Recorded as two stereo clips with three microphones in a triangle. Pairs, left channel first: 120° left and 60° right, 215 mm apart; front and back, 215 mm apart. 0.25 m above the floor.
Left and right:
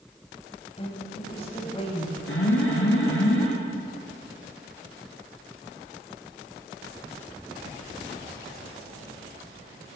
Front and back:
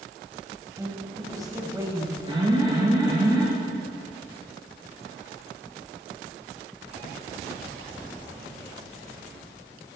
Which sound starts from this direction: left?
An alarm, at 2.3 s.